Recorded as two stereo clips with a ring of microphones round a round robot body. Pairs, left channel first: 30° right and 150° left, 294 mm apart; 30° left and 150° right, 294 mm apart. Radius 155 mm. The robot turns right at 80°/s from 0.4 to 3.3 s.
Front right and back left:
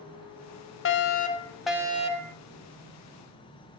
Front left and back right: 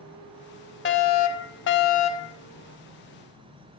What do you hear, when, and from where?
0.8 s a fire alarm: 5° right, 3 m; by 2.4 s 115° left, 3 m